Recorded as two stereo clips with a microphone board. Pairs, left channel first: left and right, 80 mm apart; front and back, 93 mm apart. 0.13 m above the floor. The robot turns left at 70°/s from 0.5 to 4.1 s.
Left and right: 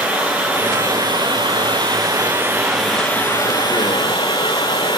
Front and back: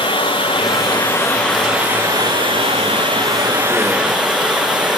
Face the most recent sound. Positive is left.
turn(degrees=95)